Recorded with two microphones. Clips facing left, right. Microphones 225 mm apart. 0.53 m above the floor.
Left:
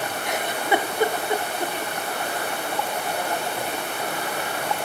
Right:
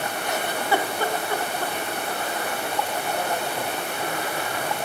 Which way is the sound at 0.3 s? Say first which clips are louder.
Left 1 dB; 20° left (ahead or behind).